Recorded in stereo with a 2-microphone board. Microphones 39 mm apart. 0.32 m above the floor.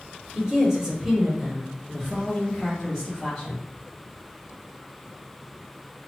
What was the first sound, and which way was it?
A woman speaking, 25° right (ahead or behind).